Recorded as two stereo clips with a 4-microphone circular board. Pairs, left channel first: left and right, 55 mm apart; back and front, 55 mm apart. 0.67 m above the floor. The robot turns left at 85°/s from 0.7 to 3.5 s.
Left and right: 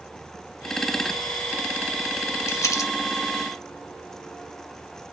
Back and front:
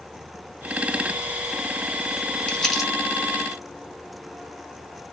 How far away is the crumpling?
About 1.7 m.